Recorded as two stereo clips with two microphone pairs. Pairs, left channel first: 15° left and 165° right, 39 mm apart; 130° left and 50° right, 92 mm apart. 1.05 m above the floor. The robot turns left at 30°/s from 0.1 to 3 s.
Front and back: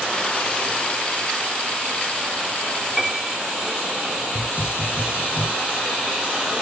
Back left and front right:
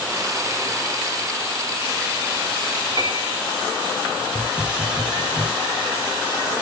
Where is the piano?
85° right, 3 m.